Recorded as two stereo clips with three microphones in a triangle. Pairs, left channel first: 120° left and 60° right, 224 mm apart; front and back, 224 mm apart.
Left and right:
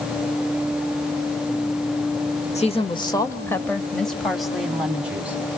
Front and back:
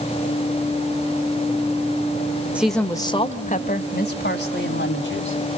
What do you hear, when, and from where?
2.5 s a woman speaking: 100° left, 1.1 m; by 5.4 s 25° left, 3 m